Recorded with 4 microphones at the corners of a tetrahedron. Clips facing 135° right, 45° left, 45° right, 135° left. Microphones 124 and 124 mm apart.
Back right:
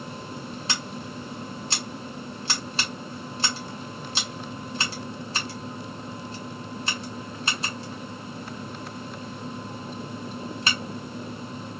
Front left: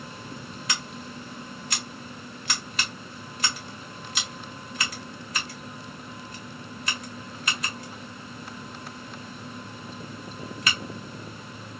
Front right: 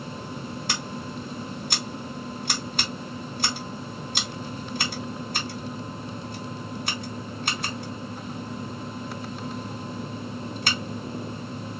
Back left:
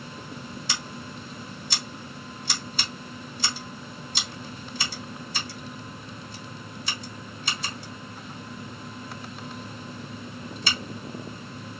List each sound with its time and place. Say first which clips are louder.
0.7 s scissors: even, front right 4 dB; 75° right, 1.6 m